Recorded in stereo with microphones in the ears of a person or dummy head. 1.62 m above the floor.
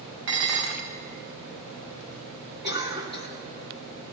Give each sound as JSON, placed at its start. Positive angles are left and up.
{"t": 0.3, "sound": "dishes clattering", "side_deg": -65, "distance_m": 1.2}
{"t": 2.6, "sound": "a cough", "side_deg": -30, "distance_m": 2.0}